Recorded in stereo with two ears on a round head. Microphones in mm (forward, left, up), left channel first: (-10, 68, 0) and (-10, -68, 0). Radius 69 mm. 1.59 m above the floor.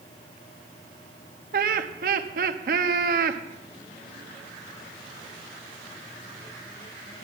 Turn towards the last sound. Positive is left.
turn(degrees=-60)  # may be behind; listen again after turning